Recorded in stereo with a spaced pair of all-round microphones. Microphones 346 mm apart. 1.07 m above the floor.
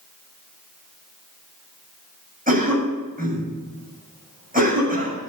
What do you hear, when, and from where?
2.5 s a cough: 25° right (ahead or behind), 7.5 m